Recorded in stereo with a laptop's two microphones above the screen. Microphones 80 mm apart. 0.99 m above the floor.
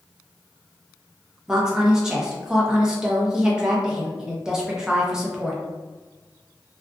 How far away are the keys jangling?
No keys jangling in this recording.